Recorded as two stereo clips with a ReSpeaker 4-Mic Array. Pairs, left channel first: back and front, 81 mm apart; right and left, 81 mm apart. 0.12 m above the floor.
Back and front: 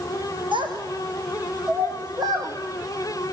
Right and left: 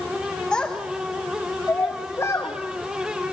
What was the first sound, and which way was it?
A child speaking, 10° right.